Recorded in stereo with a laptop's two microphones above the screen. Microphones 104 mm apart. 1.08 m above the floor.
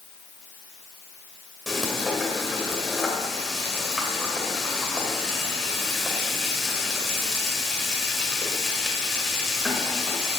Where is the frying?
Centre (ahead or behind), 1.9 m.